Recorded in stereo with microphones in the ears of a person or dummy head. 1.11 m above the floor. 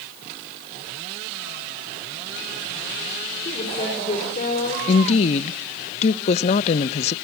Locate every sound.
3.5 s a woman speaking: 30° left (ahead or behind), 4.5 m; by 4.8 s 45° left (ahead or behind), 5 m
4.9 s a woman speaking: 40° left (ahead or behind), 0.6 m